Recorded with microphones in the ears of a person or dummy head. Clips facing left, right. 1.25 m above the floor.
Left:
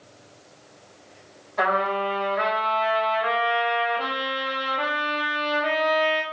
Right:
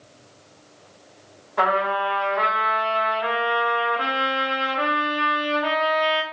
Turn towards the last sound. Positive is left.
turn(degrees=-55)  # may be behind; listen again after turning